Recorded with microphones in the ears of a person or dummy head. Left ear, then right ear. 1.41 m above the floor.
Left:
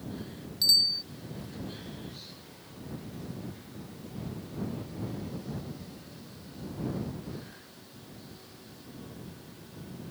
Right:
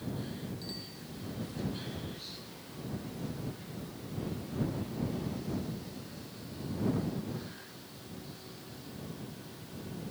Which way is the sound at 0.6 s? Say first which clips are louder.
Left 21 dB; 85° left.